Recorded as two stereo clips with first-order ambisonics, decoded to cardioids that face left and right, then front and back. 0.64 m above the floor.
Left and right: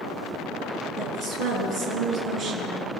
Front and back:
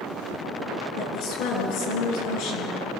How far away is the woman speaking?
About 8 m.